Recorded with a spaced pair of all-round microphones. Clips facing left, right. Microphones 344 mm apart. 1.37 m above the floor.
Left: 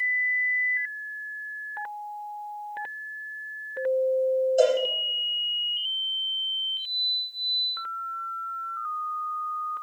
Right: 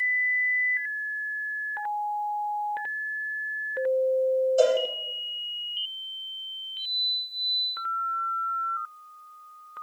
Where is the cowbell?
5° right (ahead or behind), 9.5 m.